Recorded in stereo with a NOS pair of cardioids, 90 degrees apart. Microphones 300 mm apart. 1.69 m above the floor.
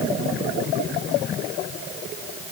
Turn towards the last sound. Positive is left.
No sound to turn to.